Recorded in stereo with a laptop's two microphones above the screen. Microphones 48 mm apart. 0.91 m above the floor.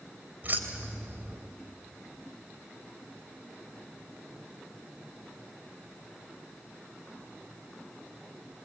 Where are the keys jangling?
40° right (ahead or behind), 3 m.